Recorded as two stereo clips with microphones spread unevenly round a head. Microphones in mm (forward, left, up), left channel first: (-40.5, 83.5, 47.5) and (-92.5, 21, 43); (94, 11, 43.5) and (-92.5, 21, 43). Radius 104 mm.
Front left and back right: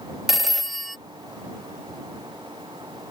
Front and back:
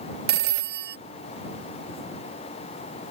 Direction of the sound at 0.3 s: 140° left.